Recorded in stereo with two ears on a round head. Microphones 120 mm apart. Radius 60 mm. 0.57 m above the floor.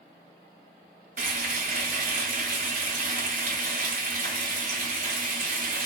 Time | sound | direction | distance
1.2 | frying | 65° right (ahead or behind) | 1.6 m